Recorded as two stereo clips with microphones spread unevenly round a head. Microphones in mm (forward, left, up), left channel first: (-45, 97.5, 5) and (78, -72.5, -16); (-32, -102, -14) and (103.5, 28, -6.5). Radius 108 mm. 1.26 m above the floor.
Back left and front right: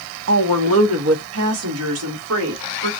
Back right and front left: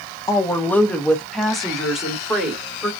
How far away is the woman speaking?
About 0.7 m.